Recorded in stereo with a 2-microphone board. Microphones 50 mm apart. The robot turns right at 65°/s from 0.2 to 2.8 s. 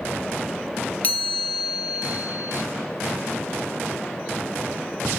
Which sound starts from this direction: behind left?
A chime, at 1.0 s.